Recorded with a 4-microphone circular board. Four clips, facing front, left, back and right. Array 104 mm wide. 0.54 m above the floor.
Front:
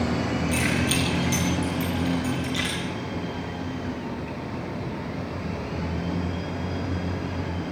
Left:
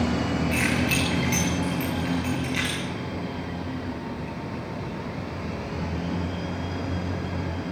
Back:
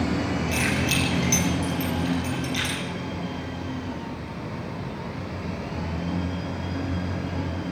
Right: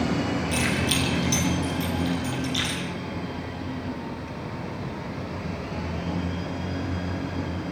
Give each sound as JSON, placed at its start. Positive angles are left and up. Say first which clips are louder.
{"t": 0.5, "sound": "keys jangling", "louder": "left 1 dB, front 1 dB", "azimuth_deg": 100, "distance_m": 8.0}